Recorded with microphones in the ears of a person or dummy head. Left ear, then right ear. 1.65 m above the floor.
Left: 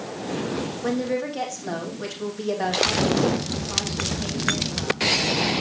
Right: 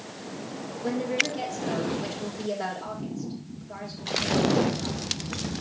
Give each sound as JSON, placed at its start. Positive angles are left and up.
{"t": 0.8, "sound": "a woman speaking", "side_deg": 70, "distance_m": 3.0}